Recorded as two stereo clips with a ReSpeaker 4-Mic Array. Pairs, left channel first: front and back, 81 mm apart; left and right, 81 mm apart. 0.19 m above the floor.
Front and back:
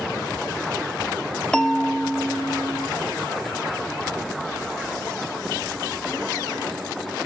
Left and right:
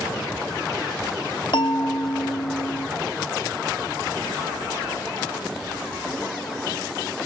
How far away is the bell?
About 0.7 m.